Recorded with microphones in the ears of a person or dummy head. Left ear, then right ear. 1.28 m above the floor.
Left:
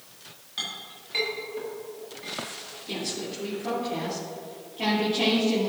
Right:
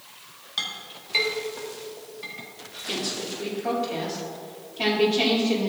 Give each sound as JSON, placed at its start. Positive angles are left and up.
{"t": 0.6, "sound": "a clink", "side_deg": -20, "distance_m": 1.8}
{"t": 2.9, "sound": "a woman speaking", "side_deg": -25, "distance_m": 2.5}